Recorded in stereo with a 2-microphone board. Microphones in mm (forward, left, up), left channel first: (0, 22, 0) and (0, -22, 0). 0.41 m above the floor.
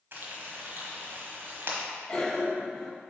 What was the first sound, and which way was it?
Frying, 55° right (ahead or behind).